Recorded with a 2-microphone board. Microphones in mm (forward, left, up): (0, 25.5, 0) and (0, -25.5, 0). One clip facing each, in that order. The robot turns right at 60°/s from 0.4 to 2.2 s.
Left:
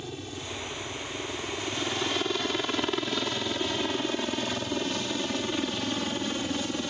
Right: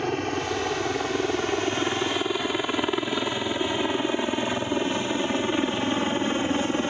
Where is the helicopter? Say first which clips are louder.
Right 12 dB; 60° right (ahead or behind); by 6.9 s 35° right (ahead or behind).